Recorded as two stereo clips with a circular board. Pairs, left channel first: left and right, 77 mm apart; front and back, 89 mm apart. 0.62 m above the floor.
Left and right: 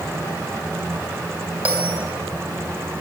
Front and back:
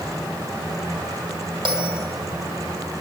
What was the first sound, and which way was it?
A bell, 160° right.